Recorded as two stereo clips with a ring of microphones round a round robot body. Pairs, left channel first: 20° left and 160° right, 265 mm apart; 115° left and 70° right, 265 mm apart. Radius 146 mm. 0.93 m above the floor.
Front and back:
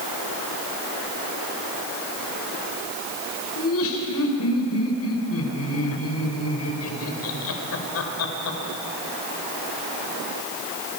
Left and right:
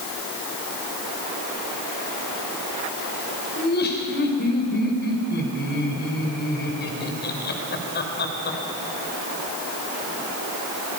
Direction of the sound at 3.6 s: 60° left.